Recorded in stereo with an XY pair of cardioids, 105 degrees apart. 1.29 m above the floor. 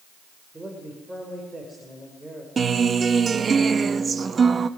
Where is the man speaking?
10° right, 5.5 m.